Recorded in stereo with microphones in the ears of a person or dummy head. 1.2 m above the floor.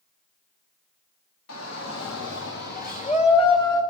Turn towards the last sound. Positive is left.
turn(degrees=20)  # may be behind; listen again after turning